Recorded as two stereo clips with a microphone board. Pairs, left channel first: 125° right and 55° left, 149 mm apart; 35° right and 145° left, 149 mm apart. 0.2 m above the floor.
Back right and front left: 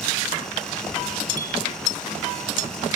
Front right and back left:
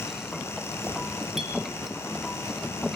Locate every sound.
1.4 s a clink: 125° right, 2.5 m